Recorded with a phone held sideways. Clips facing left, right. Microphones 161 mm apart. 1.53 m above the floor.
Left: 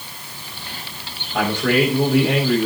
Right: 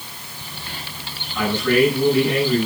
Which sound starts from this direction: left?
A man speaking, at 1.3 s.